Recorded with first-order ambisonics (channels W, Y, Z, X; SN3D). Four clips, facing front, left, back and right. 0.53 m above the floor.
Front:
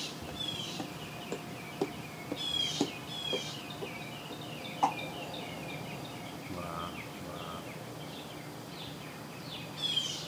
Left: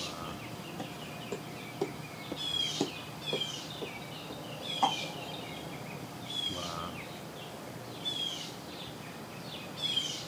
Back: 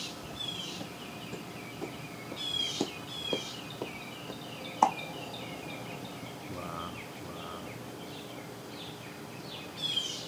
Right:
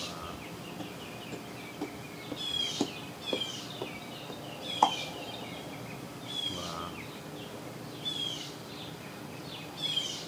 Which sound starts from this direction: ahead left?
Footsteps, at 0.2 s.